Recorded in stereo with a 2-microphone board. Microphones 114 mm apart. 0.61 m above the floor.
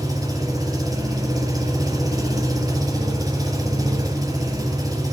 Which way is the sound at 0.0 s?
30° right (ahead or behind).